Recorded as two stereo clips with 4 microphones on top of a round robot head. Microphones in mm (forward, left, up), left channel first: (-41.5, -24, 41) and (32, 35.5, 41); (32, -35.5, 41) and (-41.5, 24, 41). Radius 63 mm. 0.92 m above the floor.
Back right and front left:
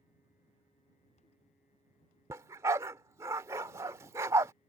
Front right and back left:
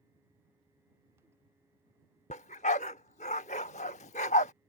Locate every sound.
2.3 s a dog barking: 25° right